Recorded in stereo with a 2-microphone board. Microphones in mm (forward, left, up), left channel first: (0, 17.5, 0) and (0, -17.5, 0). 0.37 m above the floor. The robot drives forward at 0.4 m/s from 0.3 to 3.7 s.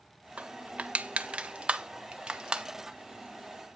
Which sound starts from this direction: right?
Crushing, at 0.4 s.